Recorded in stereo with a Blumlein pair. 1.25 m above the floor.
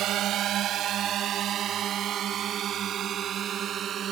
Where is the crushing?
No crushing in this recording.